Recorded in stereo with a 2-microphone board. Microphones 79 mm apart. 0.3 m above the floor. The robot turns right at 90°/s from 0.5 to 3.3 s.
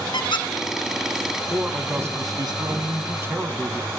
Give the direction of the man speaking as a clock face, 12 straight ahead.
6 o'clock.